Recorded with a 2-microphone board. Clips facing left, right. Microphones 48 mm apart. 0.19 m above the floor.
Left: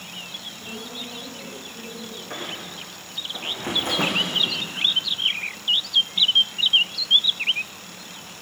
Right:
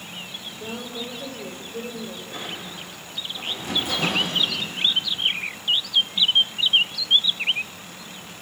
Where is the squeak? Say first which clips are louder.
Left 1 dB; 55° left (ahead or behind), 7 m.